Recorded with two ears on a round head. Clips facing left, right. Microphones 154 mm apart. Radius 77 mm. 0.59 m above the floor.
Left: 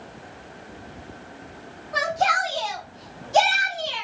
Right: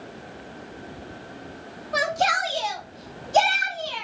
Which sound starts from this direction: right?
A shout, at 1.9 s.